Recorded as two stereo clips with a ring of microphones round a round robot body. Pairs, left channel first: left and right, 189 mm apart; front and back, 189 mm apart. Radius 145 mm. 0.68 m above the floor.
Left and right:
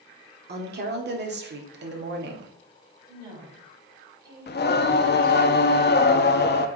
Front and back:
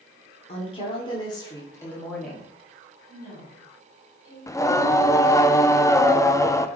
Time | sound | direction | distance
0.5 | a woman speaking | 60° right | 1.9 m
3.1 | a woman speaking | 55° right | 4 m
4.5 | singing | 75° left | 0.7 m